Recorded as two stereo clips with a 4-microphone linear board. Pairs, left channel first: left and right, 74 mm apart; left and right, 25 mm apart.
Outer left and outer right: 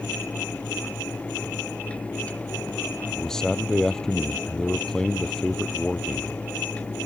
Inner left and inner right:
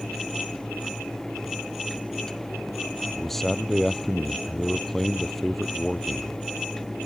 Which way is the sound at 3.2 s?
5° left (ahead or behind).